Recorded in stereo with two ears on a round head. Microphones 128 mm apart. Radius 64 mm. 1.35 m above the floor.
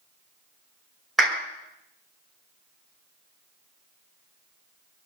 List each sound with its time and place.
1.2 s a clap: centre (ahead or behind), 5.5 m